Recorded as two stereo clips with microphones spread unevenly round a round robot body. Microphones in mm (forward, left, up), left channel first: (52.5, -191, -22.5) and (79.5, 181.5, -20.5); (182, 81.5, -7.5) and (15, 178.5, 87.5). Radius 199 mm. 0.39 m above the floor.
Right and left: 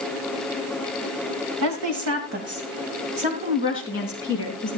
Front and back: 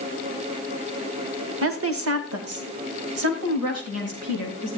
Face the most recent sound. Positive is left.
turn(degrees=170)